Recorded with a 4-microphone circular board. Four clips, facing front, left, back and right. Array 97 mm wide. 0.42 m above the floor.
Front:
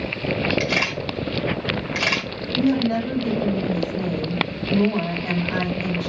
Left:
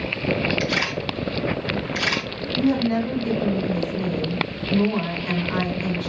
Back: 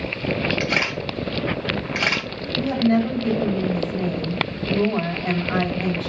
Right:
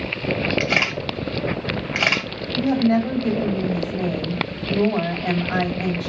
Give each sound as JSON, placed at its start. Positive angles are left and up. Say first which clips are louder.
{"t": 0.6, "sound": "a camera shutter", "louder": "right 1 dB, even", "azimuth_deg": -105, "distance_m": 2.0}
{"t": 2.5, "sound": "a woman speaking", "louder": "right 2 dB, back 1 dB", "azimuth_deg": -120, "distance_m": 2.5}